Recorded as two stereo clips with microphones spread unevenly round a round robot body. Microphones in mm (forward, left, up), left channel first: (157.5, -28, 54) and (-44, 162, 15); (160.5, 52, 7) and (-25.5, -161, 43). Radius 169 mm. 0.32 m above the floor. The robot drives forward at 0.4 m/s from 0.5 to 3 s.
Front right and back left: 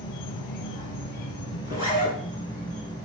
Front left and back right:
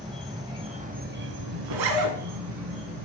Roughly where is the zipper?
Behind right.